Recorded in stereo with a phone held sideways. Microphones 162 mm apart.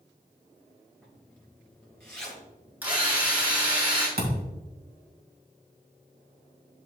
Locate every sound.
1.0 s a zipper: 5° left (ahead or behind), 3 m
2.8 s a drill: 10° right (ahead or behind), 3.5 m
4.2 s a thud: 85° right, 2.5 m